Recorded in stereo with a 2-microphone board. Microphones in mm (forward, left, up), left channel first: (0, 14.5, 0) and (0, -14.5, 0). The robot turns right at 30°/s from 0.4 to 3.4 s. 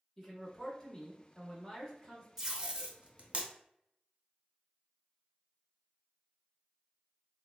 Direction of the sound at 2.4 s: 15° right (ahead or behind).